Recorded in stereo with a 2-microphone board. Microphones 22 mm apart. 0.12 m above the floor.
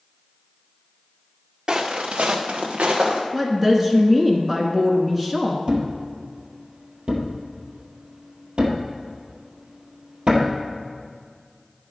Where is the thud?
55° right (ahead or behind), 1.5 m.